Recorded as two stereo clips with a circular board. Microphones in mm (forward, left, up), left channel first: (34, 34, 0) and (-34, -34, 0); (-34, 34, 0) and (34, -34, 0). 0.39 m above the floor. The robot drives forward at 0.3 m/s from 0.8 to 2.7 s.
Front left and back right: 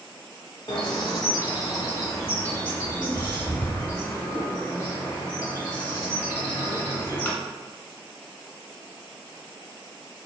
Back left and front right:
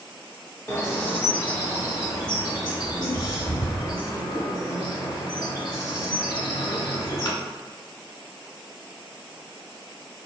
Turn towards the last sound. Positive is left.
turn(degrees=110)